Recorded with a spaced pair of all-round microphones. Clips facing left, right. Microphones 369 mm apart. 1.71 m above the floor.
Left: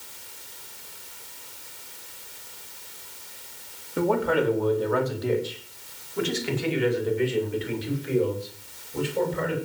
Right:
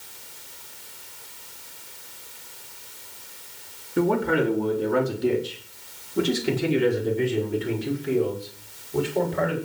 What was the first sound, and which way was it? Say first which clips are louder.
A man speaking: right 2 dB; 30° right (ahead or behind).